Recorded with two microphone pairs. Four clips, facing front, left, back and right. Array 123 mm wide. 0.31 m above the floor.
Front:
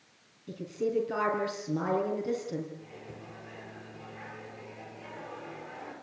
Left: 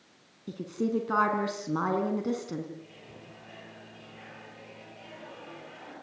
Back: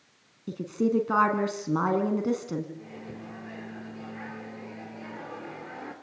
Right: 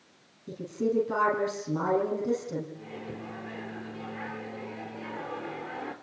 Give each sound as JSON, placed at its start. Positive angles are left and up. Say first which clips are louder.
{"t": 0.5, "sound": "a woman speaking", "louder": "right 1 dB, back 5 dB", "azimuth_deg": 170, "distance_m": 3.5}
{"t": 2.8, "sound": "a microwave", "louder": "right 8 dB, back 5 dB", "azimuth_deg": -120, "distance_m": 4.5}